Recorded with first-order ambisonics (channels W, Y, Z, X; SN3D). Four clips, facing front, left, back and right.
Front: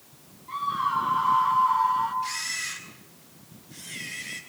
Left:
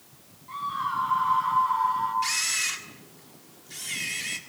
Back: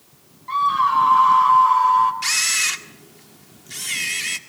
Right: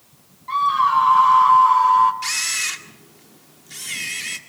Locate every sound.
0.5 s a scream: 125° right, 4 m
2.2 s a camera shutter: 160° right, 1.8 m